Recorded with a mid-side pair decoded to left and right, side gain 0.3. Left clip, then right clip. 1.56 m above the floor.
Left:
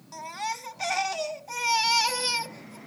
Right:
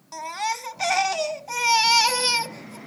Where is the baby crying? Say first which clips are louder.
Right 5 dB; 60° right.